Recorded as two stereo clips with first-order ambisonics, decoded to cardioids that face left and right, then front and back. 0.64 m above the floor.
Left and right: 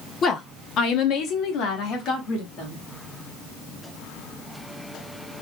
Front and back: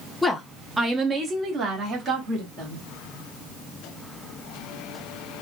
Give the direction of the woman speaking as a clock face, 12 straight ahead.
10 o'clock.